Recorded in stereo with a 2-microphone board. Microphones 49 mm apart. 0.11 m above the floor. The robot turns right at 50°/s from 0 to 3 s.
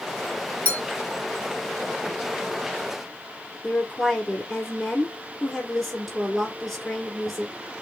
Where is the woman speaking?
5° left (ahead or behind), 1.6 m.